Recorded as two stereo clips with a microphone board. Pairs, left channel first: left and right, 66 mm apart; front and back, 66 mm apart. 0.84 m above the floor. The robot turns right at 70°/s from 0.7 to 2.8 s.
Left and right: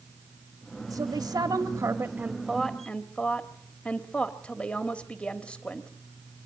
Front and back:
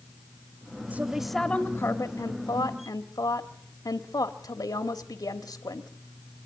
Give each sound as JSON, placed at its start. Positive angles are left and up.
{"t": 0.9, "sound": "a woman speaking", "azimuth_deg": -115, "distance_m": 1.4}